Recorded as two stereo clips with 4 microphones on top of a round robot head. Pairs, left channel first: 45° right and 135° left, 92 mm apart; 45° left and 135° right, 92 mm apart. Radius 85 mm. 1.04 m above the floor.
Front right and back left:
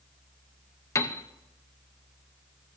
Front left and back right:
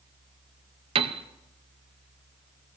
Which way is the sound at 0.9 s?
105° right.